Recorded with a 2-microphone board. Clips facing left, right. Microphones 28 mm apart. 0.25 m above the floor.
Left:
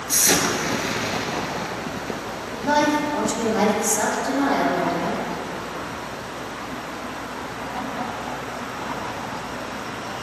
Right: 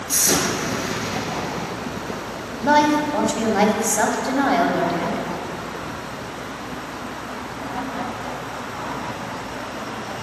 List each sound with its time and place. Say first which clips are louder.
0.1 s an explosion: left 1 dB; 25° left (ahead or behind), 0.8 m
2.6 s a woman speaking: right 3 dB; 30° right (ahead or behind), 1.0 m